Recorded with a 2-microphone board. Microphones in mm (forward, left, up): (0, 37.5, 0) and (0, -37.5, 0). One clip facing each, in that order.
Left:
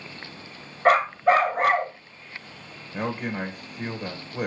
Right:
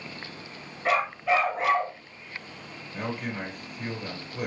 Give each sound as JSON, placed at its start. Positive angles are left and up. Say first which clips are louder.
{"t": 0.8, "sound": "a dog barking", "louder": "left 6 dB", "side_deg": 55, "distance_m": 1.9}
{"t": 2.9, "sound": "a man speaking", "louder": "left 4 dB", "side_deg": 35, "distance_m": 1.6}